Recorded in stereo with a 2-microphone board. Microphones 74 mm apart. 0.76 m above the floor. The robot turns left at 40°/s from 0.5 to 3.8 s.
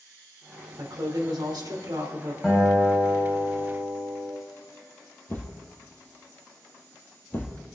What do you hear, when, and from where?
0.8 s a woman speaking: 65° right, 2.5 m; by 2.3 s 130° right, 2.5 m
2.4 s a guitar: 175° left, 5 m; by 4.3 s 120° left, 5 m
5.3 s a thud: 30° left (ahead or behind), 2.5 m